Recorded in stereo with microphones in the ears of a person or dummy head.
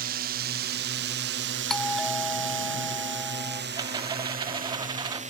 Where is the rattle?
20° right (ahead or behind).